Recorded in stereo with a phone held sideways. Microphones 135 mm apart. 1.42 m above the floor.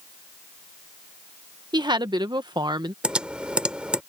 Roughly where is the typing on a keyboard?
Centre.